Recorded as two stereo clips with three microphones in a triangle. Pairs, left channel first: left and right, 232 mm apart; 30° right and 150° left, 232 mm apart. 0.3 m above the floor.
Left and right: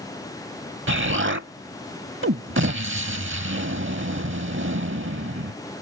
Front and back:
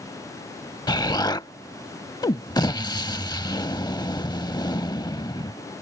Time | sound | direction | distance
0.9 | an explosion | 100° right | ?